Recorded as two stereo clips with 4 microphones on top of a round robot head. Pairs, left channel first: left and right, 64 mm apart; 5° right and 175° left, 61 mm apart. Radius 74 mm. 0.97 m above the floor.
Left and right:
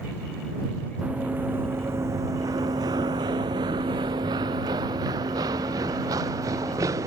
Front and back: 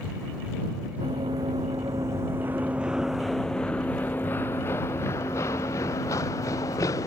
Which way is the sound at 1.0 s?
155° right.